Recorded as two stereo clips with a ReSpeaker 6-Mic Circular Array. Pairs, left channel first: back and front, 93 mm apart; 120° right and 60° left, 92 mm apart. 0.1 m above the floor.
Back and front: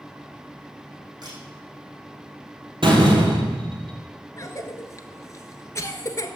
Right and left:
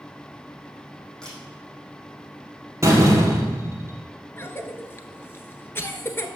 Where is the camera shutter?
40° right, 4.5 m.